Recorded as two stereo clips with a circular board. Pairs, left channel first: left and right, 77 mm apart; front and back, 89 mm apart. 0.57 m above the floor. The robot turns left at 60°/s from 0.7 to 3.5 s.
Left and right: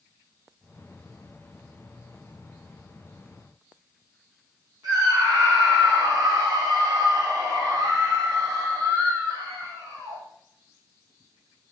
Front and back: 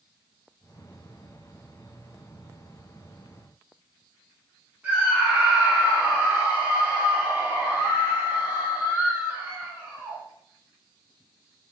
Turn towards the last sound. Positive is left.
turn(degrees=-105)